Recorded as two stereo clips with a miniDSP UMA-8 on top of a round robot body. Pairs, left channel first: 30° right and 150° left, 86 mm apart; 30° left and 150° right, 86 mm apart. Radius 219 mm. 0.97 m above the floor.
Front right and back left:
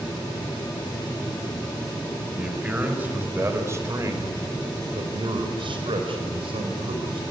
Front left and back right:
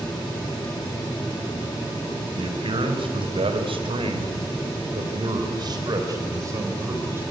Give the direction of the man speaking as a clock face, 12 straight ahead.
4 o'clock.